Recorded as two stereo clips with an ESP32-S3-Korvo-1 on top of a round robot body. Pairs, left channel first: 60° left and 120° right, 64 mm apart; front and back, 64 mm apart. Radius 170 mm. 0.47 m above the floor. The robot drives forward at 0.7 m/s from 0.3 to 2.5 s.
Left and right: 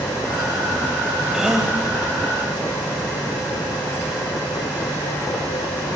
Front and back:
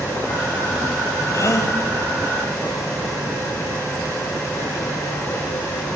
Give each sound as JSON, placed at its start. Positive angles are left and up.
{"t": 1.3, "sound": "a gasp", "azimuth_deg": -35, "distance_m": 4.0}